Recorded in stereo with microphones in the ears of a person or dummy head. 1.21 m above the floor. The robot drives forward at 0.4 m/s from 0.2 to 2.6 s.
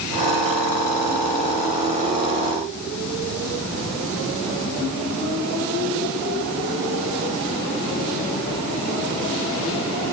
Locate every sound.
Only background noise.